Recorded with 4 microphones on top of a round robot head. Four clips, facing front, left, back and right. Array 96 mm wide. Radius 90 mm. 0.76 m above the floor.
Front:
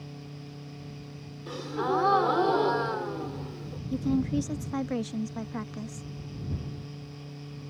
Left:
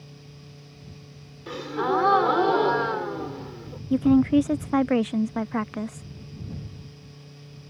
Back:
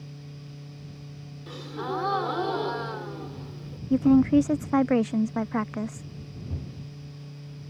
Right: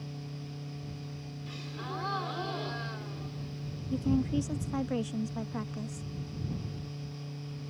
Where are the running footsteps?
No running footsteps in this recording.